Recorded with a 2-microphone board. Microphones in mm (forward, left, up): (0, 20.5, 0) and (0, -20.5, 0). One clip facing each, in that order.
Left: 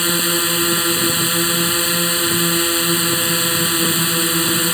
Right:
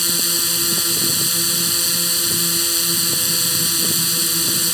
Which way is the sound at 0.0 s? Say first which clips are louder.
Left 5 dB; 30° left (ahead or behind).